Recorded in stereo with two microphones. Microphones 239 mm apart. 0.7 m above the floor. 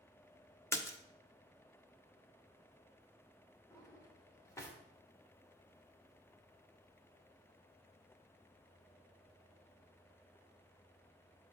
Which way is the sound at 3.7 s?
10° left (ahead or behind).